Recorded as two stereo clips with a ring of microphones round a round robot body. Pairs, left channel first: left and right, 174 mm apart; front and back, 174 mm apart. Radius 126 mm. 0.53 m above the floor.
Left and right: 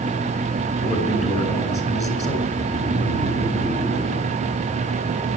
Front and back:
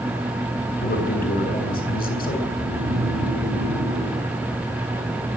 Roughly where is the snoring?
Behind.